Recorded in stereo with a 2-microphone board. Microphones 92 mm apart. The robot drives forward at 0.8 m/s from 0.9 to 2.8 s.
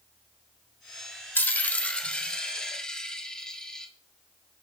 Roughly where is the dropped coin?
Left.